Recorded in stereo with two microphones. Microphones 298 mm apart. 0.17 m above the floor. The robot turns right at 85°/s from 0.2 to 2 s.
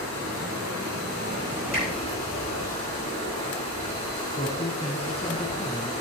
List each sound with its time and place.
0.0 s running water: 130° right, 5.5 m; by 6.0 s 20° left, 5.5 m
1.7 s a finger snap: 30° left (ahead or behind), 7.5 m; by 1.9 s 40° left (ahead or behind), 7.5 m
4.4 s a man speaking: 20° left (ahead or behind), 1.4 m